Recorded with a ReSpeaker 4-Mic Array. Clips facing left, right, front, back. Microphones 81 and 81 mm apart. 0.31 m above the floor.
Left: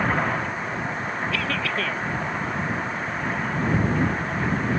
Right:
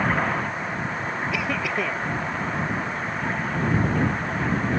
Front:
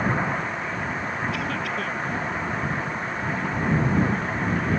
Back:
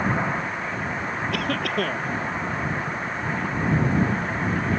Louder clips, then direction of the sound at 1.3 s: Right 1 dB, back 2 dB; 165° right.